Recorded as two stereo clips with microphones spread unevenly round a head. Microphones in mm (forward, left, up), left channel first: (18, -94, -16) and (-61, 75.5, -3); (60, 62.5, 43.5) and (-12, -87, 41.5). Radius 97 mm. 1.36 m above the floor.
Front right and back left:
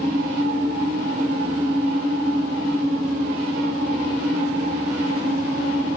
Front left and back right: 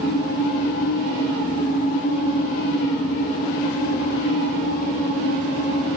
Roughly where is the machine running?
Ahead left.